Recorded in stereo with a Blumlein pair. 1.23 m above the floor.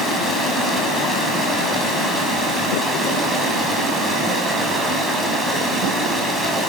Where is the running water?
5° right, 6 m.